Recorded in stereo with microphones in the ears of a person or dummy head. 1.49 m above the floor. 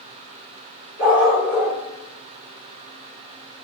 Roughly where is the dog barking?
Centre.